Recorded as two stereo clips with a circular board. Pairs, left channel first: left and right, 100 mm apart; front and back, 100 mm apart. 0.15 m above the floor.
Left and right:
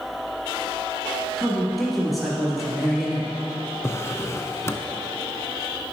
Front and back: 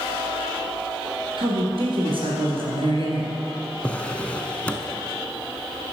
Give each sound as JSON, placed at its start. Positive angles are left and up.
{"t": 1.4, "sound": "a man speaking", "azimuth_deg": 180, "distance_m": 2.5}
{"t": 3.8, "sound": "a drawer", "azimuth_deg": 65, "distance_m": 0.6}